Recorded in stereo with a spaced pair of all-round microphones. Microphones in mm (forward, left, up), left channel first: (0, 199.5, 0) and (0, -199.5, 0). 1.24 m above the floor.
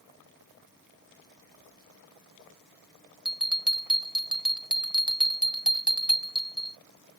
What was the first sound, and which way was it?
A bell, centre (ahead or behind).